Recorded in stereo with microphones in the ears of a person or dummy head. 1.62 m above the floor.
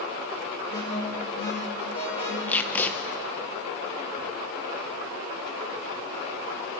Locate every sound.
0.7 s an alarm: 30° left (ahead or behind), 5 m
2.5 s tape being pulled: 5° left (ahead or behind), 1.4 m